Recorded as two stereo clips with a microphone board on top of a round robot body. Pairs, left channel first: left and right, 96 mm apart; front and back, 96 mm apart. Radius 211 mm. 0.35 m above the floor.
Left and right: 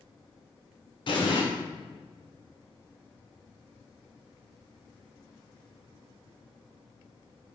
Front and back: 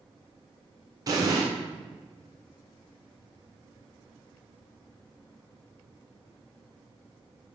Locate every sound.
1.1 s an explosion: 130° left, 1.7 m